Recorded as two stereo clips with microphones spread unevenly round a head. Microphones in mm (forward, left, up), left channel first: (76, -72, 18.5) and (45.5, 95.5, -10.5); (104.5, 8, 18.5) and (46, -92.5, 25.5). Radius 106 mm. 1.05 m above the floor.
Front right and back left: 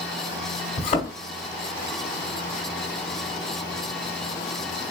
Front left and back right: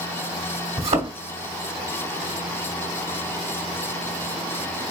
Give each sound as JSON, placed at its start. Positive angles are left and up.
{"t": 0.8, "sound": "a thud", "azimuth_deg": -130, "distance_m": 0.9}